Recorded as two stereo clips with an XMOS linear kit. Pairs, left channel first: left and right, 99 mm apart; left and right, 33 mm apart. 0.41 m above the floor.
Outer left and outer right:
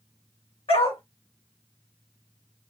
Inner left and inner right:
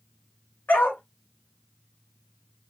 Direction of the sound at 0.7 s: 85° left.